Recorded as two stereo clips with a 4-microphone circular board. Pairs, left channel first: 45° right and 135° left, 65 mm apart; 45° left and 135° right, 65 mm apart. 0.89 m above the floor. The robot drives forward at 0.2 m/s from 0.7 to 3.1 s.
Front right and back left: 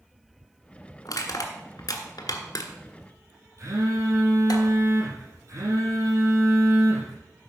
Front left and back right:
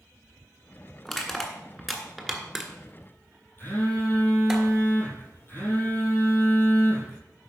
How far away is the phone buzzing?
About 5.5 m.